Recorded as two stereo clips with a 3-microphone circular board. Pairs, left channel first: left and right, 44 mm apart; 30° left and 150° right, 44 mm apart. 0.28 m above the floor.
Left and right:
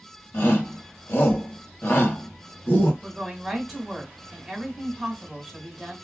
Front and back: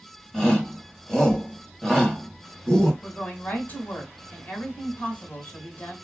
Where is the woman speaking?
Straight ahead, 1.4 m.